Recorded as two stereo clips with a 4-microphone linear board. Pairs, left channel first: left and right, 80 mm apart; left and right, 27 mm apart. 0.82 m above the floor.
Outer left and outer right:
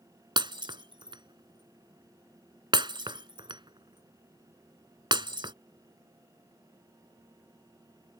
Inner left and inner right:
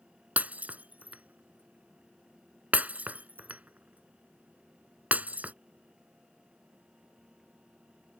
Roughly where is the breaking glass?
Right.